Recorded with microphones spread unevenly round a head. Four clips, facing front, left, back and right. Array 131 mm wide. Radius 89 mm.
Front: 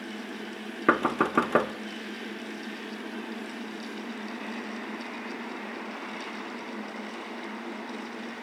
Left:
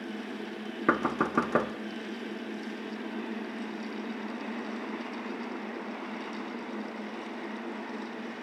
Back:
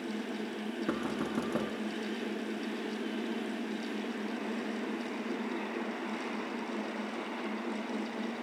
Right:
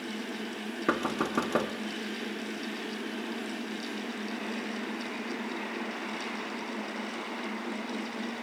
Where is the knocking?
Straight ahead, 1.1 m.